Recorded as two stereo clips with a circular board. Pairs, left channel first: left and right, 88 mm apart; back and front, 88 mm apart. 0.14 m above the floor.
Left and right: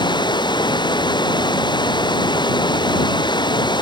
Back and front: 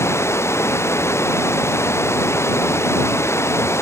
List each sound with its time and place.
0.0 s running water: 120° left